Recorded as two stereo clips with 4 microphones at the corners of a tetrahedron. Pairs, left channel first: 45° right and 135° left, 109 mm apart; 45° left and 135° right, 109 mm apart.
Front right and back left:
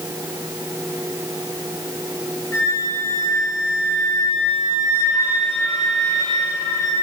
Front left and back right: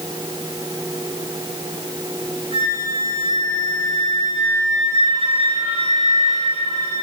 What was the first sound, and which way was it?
A flute, 110° right.